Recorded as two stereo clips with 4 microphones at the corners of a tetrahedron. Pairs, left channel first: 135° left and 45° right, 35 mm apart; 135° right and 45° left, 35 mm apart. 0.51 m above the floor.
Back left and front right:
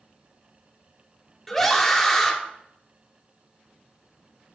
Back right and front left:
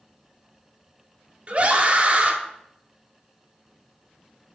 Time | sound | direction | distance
1.5 | a scream | 55° left | 0.9 m